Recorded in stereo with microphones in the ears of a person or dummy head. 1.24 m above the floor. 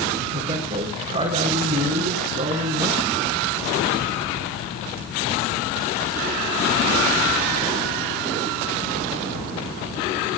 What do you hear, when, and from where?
0.3 s a woman speaking: 40° right (ahead or behind), 4 m